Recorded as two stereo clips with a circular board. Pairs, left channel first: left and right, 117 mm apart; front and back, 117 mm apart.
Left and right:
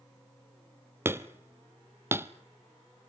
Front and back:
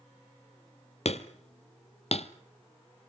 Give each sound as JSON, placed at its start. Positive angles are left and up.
{"t": 1.1, "sound": "hammering", "azimuth_deg": -20, "distance_m": 0.8}